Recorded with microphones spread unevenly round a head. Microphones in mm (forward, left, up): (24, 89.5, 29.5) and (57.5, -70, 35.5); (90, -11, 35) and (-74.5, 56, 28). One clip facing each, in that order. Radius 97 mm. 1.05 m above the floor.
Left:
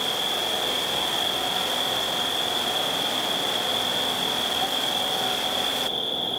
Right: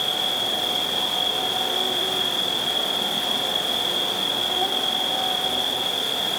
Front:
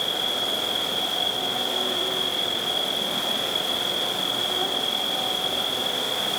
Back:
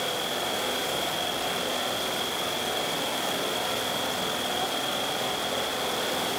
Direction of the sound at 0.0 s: 45° right.